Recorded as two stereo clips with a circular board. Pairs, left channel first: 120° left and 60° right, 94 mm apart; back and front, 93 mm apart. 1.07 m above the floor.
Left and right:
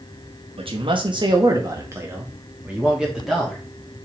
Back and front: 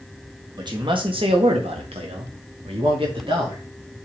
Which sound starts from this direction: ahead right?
A man speaking, at 0.6 s.